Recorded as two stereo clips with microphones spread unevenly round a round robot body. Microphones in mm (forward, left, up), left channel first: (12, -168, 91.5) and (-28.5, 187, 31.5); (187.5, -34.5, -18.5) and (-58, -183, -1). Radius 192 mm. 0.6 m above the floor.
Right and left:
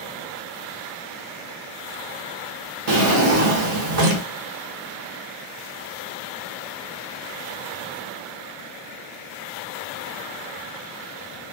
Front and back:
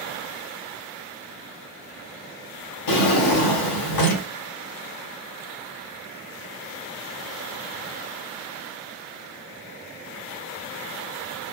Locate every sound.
2.9 s a drawer: 45° left, 0.7 m